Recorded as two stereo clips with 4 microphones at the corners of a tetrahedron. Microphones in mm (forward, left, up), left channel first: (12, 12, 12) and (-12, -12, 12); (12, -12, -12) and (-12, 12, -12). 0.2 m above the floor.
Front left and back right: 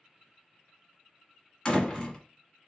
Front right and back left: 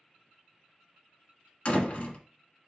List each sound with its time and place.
1.6 s a door slam: 10° right, 1.4 m